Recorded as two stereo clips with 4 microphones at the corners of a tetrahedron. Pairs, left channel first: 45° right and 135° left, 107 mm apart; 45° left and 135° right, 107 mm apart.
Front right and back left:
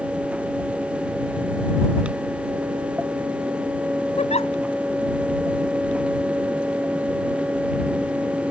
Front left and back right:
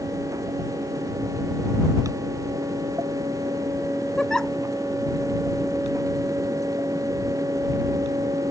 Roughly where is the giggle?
Ahead right.